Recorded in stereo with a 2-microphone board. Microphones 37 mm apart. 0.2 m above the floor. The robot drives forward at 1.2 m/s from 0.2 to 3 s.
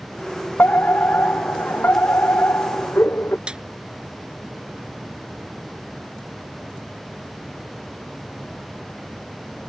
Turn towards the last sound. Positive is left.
turn(degrees=-25)  # may be behind; listen again after turning